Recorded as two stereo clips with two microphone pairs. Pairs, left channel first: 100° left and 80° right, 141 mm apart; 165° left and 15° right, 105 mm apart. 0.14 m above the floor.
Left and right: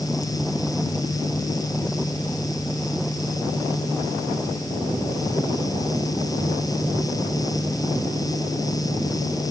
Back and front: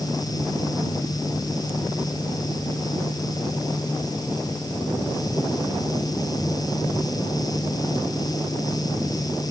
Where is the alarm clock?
I don't hear an alarm clock.